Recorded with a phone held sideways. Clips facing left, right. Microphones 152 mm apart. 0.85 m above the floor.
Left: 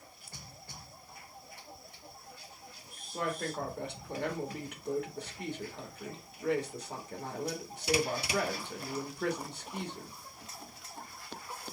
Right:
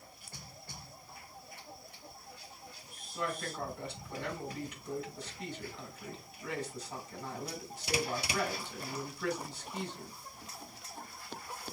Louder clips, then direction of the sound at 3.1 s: Left 3 dB; 60° left (ahead or behind).